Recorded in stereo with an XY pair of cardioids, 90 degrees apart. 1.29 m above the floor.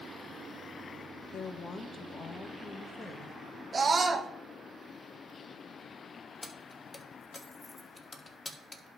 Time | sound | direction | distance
1.3 | a woman speaking | 60° left | 1.0 m
3.7 | a scream | 40° right | 1.4 m
6.4 | keys jangling | 25° left | 1.4 m